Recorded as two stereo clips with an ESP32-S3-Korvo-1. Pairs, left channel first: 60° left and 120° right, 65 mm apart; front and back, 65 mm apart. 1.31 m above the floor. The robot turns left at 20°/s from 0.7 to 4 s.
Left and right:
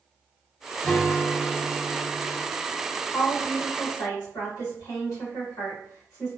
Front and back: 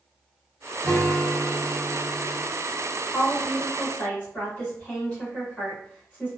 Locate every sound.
0.8 s a guitar: 150° left, 1.9 m; by 2.4 s 115° left, 1.9 m
3.1 s a woman speaking: 95° left, 1.9 m; by 6.4 s 75° left, 1.9 m